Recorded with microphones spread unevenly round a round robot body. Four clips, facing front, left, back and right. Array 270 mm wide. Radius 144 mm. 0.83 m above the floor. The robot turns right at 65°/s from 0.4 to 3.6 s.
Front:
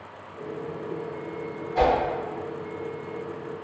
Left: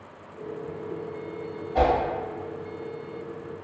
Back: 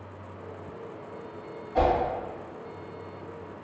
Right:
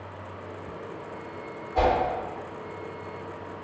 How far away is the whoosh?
About 1.5 m.